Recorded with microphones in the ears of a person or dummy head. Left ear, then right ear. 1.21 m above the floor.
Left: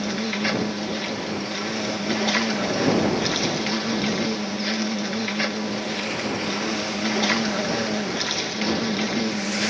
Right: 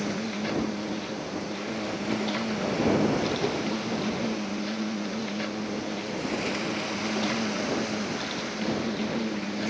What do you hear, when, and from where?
0.0 s an insect: 60° left (ahead or behind)